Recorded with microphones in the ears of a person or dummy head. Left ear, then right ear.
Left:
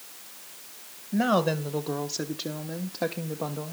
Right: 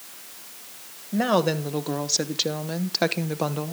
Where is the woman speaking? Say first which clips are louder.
Right 2 dB; 5° right (ahead or behind), 1.5 m; by 3.7 s 75° right (ahead or behind), 1.2 m.